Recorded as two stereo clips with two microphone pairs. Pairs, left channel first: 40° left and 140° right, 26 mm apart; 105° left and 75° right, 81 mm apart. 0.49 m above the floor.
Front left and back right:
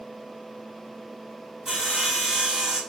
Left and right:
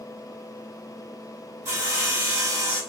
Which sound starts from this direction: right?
Sawing, at 1.6 s.